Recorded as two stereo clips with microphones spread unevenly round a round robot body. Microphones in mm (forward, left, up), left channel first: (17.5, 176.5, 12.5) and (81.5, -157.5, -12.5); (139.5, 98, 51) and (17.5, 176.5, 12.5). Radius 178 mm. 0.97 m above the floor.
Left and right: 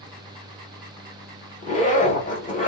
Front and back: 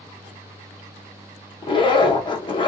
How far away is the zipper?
About 1.2 m.